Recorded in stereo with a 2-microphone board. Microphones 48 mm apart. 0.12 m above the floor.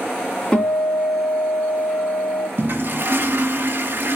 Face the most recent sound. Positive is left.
turn(degrees=-50)  # may be behind; listen again after turning